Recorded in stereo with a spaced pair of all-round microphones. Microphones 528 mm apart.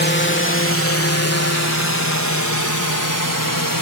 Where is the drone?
20° left (ahead or behind); by 3.8 s 40° left (ahead or behind).